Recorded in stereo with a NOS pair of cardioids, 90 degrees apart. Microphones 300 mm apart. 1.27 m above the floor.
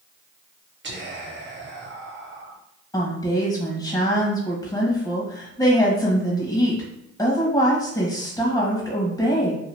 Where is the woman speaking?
10° left, 1.2 m.